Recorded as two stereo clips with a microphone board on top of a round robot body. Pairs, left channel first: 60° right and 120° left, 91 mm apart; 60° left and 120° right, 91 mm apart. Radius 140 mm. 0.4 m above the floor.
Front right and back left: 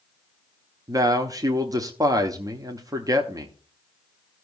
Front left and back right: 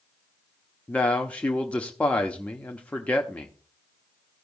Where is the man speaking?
130° left, 1.2 m.